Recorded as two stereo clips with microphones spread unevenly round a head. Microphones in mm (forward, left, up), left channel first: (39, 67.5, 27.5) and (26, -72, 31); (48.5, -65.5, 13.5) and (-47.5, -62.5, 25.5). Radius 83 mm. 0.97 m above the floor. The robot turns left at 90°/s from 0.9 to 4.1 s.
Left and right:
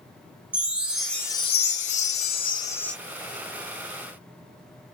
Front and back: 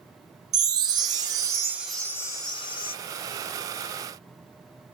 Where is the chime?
175° right, 0.6 m; by 3.0 s straight ahead, 0.6 m.